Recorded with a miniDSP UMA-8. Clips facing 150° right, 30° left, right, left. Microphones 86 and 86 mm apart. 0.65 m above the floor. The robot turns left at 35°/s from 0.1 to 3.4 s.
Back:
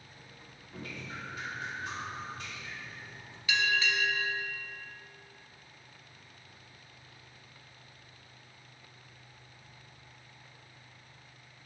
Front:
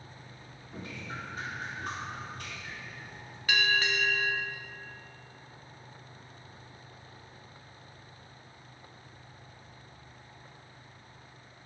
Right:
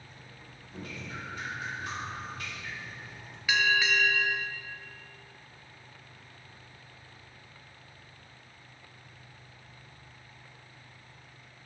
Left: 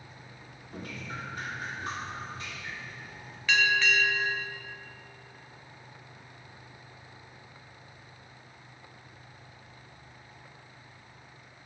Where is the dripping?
95° left, 1.5 m; by 3.4 s straight ahead, 1.5 m.